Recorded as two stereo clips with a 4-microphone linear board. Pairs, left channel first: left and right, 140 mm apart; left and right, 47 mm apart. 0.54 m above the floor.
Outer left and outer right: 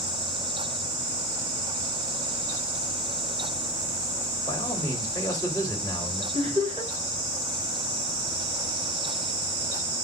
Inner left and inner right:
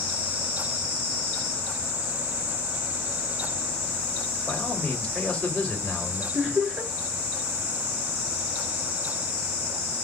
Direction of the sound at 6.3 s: 40° right (ahead or behind).